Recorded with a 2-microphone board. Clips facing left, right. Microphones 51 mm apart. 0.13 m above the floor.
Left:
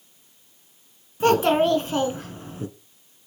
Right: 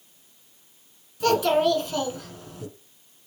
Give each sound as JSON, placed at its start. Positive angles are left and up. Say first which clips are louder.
{"t": 1.2, "sound": "a child speaking", "louder": "left 2 dB", "side_deg": 35, "distance_m": 0.7}